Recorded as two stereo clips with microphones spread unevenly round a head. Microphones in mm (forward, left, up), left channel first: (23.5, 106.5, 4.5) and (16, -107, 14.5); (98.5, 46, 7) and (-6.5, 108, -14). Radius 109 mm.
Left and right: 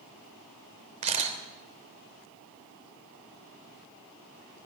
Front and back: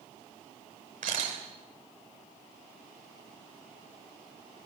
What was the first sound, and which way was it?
A camera shutter, 155° right.